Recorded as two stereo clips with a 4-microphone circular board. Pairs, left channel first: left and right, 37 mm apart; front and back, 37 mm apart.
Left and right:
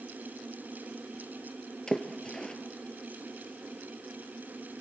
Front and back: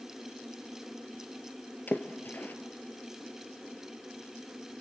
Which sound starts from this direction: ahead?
A splash, at 1.9 s.